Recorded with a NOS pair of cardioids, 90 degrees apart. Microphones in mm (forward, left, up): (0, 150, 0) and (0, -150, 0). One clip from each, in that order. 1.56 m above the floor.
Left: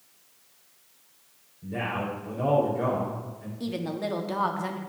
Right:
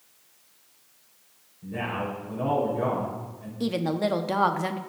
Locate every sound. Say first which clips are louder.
1.6 s a man speaking: even; 20° left, 3 m
3.6 s a woman speaking: right 5 dB; 30° right, 0.9 m